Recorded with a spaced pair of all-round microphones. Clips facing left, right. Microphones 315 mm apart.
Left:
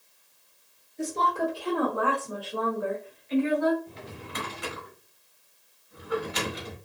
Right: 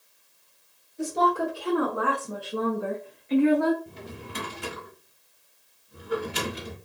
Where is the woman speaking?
5° right (ahead or behind), 1.4 m; by 3.8 s 75° right (ahead or behind), 0.6 m.